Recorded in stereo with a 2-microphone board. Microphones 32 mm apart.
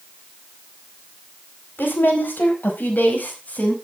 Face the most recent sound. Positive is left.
turn(degrees=45)  # may be behind; listen again after turning